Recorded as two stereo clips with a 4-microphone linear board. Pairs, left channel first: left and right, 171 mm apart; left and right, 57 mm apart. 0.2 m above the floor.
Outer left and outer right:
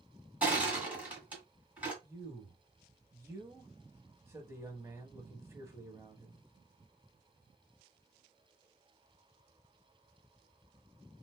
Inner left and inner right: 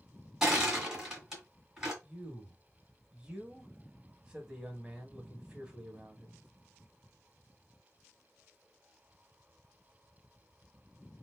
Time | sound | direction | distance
0.4 | crushing | 10° right (ahead or behind) | 1.6 m
2.0 | a man speaking | 15° right (ahead or behind) | 1.0 m